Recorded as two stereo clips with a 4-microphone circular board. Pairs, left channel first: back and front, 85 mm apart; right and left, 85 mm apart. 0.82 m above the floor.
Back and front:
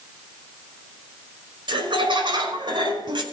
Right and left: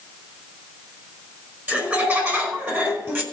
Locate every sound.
1.7 s laughter: 20° left, 4.5 m; by 3.2 s 25° left, 4 m